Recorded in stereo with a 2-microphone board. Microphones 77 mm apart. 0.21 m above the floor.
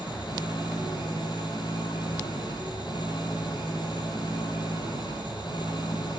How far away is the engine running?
About 5 m.